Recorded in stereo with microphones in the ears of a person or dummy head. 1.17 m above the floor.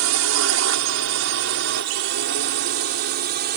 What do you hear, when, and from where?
0.0 s a drone: 50° right (ahead or behind); by 3.6 s 40° right (ahead or behind)